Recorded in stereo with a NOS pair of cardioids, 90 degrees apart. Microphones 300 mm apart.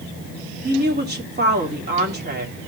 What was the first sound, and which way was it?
A woman speaking, 30° right.